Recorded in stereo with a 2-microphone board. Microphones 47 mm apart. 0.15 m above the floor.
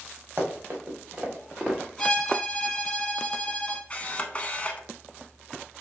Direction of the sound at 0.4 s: 45° right (ahead or behind).